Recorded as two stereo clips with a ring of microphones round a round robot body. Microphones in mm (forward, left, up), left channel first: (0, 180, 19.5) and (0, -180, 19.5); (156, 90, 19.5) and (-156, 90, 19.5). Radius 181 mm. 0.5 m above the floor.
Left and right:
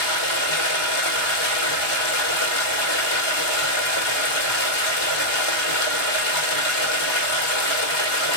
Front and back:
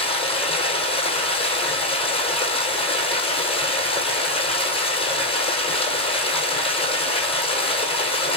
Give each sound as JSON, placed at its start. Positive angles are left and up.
{"t": 0.0, "sound": "running water", "azimuth_deg": 75, "distance_m": 1.7}